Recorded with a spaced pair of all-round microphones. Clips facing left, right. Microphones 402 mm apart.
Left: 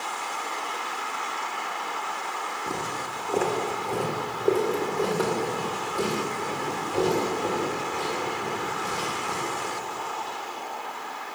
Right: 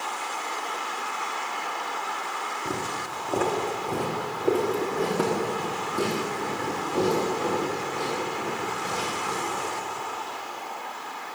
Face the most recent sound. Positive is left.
turn(degrees=-85)